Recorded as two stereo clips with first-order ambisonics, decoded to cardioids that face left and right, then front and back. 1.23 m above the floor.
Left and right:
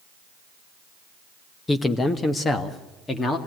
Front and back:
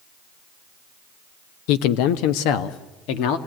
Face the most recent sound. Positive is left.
turn(degrees=15)